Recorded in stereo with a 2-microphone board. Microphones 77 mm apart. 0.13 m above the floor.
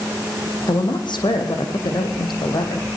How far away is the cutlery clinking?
I don't hear cutlery clinking.